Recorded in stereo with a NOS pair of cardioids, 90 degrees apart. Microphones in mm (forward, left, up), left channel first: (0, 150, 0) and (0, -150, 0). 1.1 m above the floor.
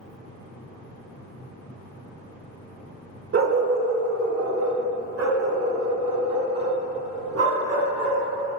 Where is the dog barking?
50° right, 1.5 m; by 8.2 s 55° right, 5.5 m.